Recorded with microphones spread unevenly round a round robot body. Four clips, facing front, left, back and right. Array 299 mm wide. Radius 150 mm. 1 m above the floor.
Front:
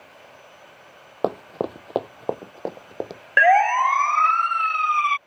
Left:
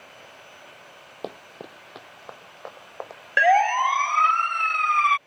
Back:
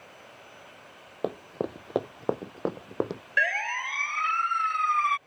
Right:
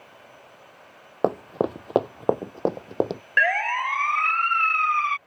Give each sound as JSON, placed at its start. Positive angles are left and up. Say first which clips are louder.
{"t": 1.2, "sound": "running footsteps", "louder": "right 14 dB, front 6 dB", "azimuth_deg": -40}
{"t": 3.4, "sound": "a siren", "louder": "left 6 dB, front 14 dB", "azimuth_deg": 25}